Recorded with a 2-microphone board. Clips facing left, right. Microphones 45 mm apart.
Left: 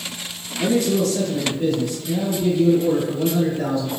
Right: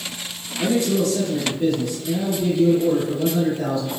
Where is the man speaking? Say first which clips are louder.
Left 1 dB; 20° right (ahead or behind), 1.7 m; by 3.9 s 30° left (ahead or behind), 1.9 m.